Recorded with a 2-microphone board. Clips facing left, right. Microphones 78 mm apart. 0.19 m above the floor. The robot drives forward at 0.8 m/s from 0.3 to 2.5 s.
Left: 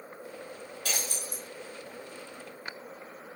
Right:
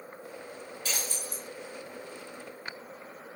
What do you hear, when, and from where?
0.8 s breaking glass: 80° left, 2 m; by 1.4 s 70° left (ahead or behind), 2 m